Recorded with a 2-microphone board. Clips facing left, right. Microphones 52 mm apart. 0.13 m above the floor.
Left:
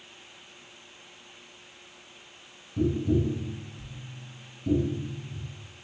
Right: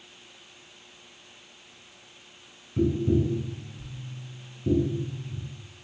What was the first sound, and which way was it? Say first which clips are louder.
Tapping: right 2 dB; 30° right (ahead or behind).